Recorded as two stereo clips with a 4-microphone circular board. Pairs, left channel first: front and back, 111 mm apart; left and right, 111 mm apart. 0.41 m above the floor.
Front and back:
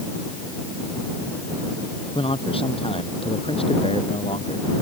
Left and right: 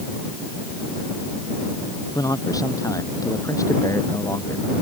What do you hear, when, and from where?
2.1 s a man speaking: 35° left; by 4.8 s 30° left